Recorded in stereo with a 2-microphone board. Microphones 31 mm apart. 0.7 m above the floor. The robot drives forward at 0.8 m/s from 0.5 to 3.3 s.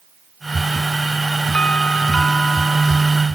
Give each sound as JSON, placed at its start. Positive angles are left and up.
{"t": 1.5, "sound": "a doorbell", "side_deg": 45}